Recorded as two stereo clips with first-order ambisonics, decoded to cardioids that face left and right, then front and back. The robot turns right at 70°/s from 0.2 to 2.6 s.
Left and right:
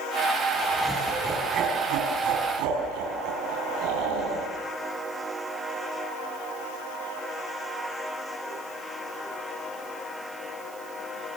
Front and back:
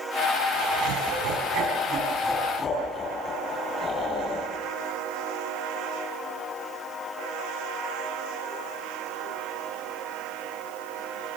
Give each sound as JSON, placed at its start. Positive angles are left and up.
{"t": 0.5, "sound": "laughter", "azimuth_deg": 145, "distance_m": 4.5}